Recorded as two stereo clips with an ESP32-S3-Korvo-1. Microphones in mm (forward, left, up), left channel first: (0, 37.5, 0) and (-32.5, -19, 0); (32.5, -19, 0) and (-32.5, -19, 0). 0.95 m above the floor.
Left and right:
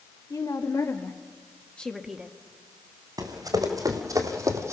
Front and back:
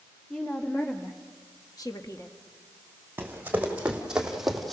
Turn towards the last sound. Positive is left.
turn(degrees=-90)